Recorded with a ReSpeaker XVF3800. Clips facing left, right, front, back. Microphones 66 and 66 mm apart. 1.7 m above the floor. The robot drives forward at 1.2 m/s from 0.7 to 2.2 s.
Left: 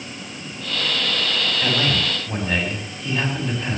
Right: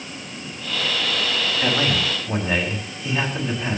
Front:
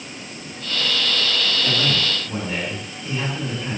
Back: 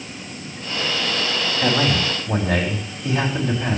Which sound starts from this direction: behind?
A man speaking, at 1.6 s.